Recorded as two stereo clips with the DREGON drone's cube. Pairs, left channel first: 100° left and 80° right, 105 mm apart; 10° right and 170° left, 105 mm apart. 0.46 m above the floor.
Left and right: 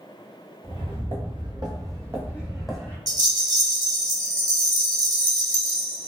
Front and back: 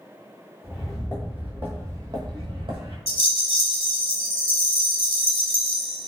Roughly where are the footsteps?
Right.